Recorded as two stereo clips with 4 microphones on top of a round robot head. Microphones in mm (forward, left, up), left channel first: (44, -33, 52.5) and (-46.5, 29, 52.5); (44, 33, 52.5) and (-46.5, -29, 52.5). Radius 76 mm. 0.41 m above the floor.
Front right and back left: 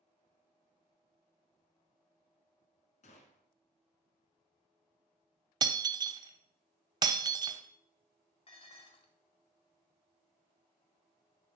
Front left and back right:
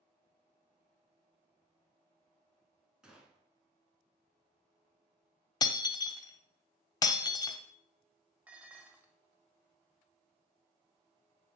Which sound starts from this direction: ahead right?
A gunshot, at 3.0 s.